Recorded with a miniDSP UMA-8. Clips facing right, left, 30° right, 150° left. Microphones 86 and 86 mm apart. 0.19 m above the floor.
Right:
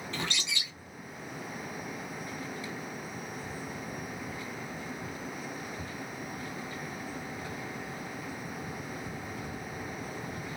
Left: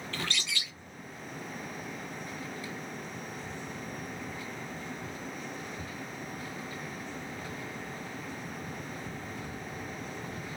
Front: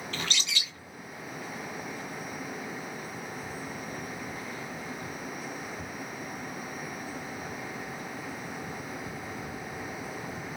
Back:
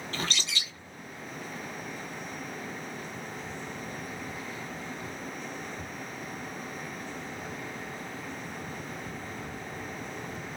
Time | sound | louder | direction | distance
0.1 | a bird | even, back 1 dB | 160° right | 0.7 m